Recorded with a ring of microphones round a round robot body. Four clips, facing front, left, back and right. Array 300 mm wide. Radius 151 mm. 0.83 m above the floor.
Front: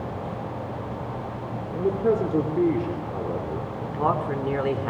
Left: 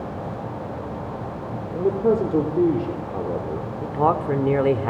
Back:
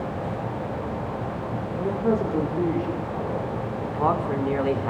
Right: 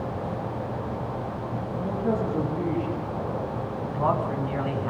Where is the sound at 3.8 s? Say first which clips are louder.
Left 5 dB, back 1 dB; 80° left, 3 m.